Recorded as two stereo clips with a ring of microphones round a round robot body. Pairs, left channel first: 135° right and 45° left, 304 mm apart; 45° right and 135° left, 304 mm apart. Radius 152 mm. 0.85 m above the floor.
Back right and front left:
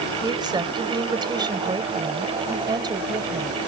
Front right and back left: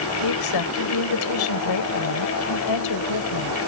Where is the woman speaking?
30° right.